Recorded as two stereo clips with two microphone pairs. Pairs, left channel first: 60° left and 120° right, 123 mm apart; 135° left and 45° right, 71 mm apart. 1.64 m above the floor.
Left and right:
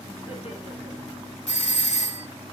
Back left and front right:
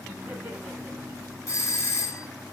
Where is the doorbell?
85° left, 0.9 m.